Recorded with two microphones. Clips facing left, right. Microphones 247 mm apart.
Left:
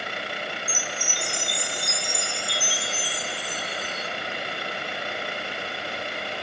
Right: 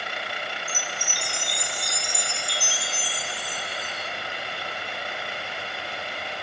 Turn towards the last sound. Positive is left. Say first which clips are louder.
# left 2 dB
turn(degrees=-45)  # may be behind; listen again after turning